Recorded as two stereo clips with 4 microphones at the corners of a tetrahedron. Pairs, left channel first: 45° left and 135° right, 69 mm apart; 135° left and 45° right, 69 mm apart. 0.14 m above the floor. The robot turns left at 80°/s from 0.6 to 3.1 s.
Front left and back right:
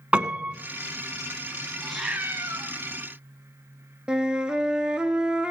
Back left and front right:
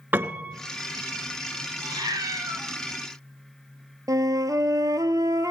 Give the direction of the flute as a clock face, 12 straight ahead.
2 o'clock.